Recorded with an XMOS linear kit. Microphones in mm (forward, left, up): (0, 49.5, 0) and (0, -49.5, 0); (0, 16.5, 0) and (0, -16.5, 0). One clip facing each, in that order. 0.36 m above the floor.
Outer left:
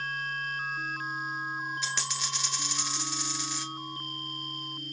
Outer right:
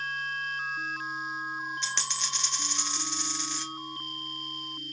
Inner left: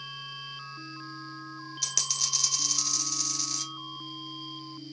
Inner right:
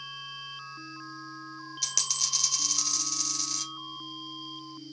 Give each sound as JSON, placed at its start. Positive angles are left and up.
{"t": 1.8, "sound": "a dropped coin", "side_deg": 5, "distance_m": 1.2}